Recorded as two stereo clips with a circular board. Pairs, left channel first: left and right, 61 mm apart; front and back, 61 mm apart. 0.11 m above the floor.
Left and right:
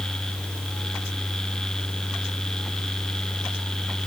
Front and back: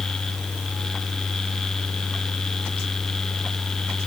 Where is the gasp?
No gasp in this recording.